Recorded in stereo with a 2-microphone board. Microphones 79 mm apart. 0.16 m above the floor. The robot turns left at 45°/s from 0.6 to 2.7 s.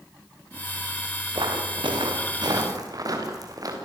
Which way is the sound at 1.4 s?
70° right (ahead or behind).